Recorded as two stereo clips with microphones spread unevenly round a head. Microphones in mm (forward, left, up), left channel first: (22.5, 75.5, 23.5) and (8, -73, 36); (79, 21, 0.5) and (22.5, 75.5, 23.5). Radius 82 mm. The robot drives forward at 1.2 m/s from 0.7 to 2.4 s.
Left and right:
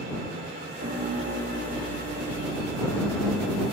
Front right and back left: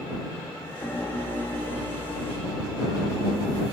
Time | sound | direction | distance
0.8 | a piano | 110° right | 2 m